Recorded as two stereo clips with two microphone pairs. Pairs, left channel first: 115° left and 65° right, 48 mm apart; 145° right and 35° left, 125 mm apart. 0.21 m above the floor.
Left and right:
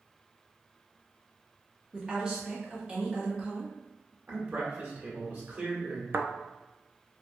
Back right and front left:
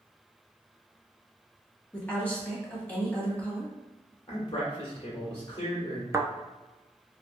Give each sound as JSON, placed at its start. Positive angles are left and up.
{"t": 1.9, "sound": "a woman speaking", "azimuth_deg": -85, "distance_m": 1.5}
{"t": 4.3, "sound": "a man speaking", "azimuth_deg": -105, "distance_m": 1.9}
{"t": 6.1, "sound": "a thud", "azimuth_deg": -30, "distance_m": 0.5}